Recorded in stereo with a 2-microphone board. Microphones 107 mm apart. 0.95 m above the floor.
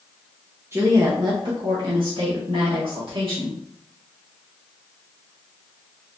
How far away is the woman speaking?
About 0.7 m.